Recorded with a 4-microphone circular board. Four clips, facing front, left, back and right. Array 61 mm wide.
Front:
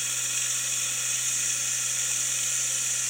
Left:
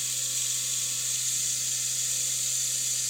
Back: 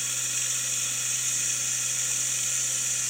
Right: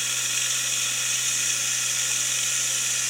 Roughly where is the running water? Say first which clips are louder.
Right 8 dB, front 1 dB; right.